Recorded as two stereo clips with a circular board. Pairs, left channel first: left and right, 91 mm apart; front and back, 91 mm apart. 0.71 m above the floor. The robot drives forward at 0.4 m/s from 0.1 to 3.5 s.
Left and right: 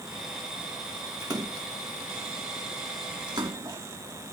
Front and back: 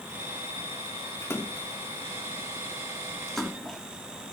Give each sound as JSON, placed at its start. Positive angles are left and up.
{"t": 1.2, "sound": "a splash", "azimuth_deg": -55}